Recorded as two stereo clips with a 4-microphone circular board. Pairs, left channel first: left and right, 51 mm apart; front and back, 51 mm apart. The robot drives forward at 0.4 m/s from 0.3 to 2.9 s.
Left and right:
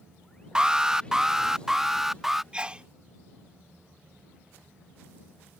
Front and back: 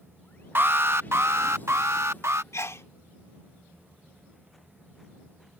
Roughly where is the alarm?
Behind.